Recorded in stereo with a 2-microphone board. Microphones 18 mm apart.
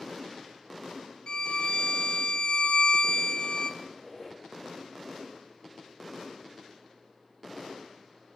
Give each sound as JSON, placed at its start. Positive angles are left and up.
{"t": 1.3, "sound": "a violin", "side_deg": 55, "distance_m": 0.5}
{"t": 3.8, "sound": "a squeak", "side_deg": 20, "distance_m": 2.0}